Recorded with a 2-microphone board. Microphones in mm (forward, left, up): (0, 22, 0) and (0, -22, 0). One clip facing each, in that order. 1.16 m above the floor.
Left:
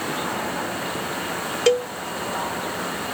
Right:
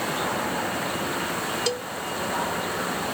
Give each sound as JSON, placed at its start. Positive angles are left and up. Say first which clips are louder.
{"t": 1.7, "sound": "a cowbell", "louder": "left 9 dB", "side_deg": 55}